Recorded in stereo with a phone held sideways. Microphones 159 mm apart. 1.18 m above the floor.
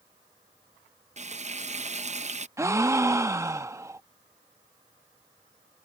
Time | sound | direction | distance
1.2 | frying | 45° right (ahead or behind) | ?
2.6 | a gasp | 20° right (ahead or behind) | ?